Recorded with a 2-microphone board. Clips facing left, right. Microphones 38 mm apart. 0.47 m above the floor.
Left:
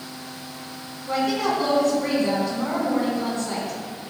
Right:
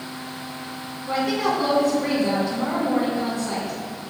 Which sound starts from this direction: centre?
A woman speaking, at 1.1 s.